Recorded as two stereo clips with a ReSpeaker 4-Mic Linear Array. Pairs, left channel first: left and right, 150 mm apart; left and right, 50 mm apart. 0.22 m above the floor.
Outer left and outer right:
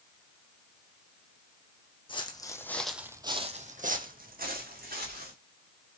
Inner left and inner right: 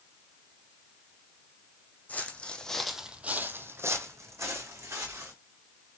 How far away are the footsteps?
About 0.8 m.